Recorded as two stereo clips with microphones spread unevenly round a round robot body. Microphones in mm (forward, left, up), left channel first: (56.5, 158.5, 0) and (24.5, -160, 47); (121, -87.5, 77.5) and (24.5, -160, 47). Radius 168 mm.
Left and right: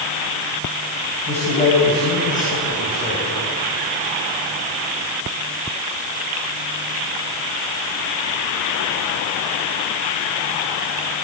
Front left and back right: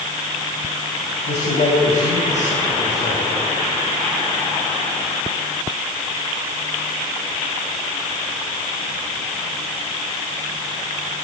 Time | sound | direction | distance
1.3 | a man speaking | 15° left | 5.5 m